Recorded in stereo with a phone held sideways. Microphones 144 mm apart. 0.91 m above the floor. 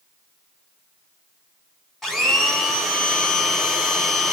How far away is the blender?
About 1.7 m.